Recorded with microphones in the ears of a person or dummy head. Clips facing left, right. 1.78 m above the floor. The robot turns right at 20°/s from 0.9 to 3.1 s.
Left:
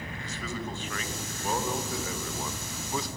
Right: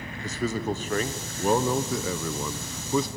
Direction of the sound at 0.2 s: 145° right.